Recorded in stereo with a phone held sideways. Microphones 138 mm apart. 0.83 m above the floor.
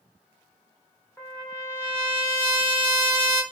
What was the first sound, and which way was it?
A trumpet, 10° left (ahead or behind).